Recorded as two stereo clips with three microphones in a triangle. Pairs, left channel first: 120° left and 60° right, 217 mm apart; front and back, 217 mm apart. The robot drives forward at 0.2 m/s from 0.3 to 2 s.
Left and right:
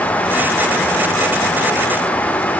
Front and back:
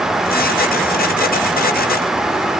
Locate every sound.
Only background noise.